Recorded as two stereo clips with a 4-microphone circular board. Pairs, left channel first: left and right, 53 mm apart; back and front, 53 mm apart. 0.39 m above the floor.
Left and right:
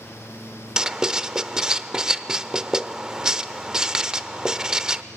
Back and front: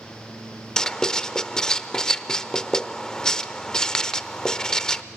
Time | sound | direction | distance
0.8 | writing | 135° right | 0.6 m